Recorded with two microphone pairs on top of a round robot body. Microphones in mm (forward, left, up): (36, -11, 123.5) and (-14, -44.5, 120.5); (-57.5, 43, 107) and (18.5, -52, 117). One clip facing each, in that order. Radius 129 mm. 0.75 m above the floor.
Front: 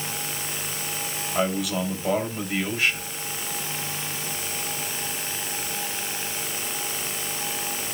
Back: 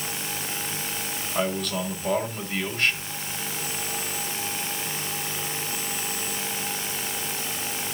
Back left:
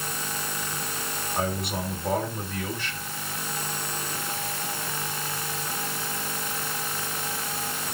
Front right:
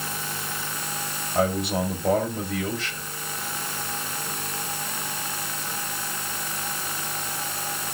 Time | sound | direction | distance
1.4 | a man speaking | 50° right | 3.5 m